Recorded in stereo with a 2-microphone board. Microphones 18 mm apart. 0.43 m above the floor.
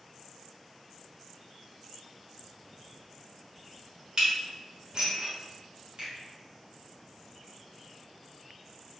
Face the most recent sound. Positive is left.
turn(degrees=-50)  # may be behind; listen again after turning